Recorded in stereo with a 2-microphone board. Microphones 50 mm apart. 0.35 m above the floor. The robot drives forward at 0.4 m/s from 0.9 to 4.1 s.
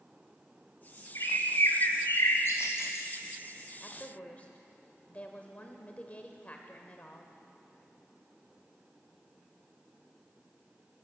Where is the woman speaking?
30° left (ahead or behind), 1.2 m.